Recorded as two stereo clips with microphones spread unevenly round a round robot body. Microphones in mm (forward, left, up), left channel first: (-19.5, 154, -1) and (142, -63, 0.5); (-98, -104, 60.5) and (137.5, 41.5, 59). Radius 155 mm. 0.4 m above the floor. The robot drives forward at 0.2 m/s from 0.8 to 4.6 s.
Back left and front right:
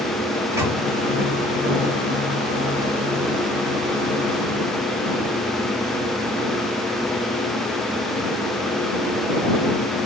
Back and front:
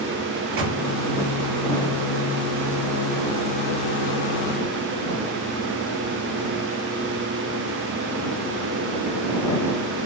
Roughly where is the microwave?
Ahead left.